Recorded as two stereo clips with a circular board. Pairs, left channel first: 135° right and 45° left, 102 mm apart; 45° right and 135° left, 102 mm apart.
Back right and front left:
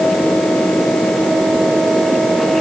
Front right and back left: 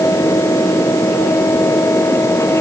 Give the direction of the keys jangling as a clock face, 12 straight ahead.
I don't hear keys jangling.